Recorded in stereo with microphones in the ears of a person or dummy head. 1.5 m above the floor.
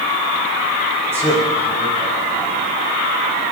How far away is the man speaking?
About 4.5 m.